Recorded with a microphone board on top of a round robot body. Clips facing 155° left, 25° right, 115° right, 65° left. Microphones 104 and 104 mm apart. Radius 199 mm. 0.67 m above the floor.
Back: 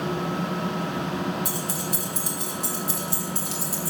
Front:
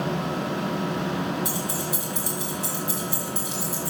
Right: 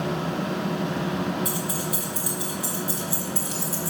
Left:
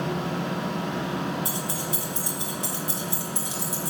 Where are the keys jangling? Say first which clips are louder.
Front 1 dB, right 2 dB; 125° left, 4.5 m; by 3.9 s 140° left, 5 m.